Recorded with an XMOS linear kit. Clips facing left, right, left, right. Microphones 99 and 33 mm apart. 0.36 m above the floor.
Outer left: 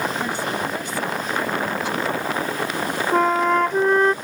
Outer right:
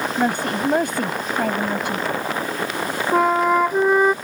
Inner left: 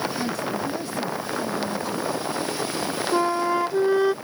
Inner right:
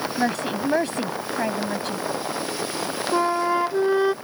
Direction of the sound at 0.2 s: 60° right (ahead or behind).